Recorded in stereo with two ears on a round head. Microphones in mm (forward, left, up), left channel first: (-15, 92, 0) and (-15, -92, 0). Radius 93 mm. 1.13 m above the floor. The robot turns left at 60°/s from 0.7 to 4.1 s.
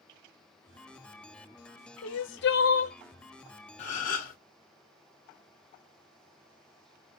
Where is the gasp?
35° left (ahead or behind), 1.3 m; by 4.4 s 45° left (ahead or behind), 1.3 m.